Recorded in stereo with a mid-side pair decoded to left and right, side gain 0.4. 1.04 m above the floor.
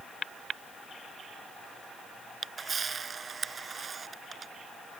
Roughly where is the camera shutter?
Ahead right.